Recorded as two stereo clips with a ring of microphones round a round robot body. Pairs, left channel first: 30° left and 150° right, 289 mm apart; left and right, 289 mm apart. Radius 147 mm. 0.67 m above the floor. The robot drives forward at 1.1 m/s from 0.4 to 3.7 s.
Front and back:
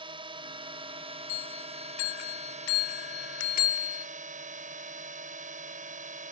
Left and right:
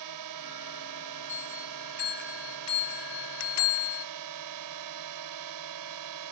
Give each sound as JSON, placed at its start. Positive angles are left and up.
{"t": 0.0, "sound": "a drone", "azimuth_deg": -75}
{"t": 1.3, "sound": "a bell", "azimuth_deg": 25}